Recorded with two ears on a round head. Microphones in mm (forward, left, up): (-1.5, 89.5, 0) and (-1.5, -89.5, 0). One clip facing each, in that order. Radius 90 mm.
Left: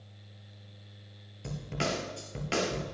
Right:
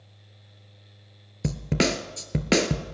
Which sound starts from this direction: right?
A snare drum, at 1.4 s.